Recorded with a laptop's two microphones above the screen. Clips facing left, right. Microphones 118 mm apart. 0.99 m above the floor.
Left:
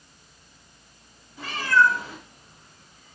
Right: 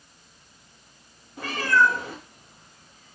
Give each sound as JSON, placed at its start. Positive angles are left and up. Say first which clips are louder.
{"t": 1.4, "sound": "a cat meowing", "louder": "even", "side_deg": -55, "distance_m": 0.7}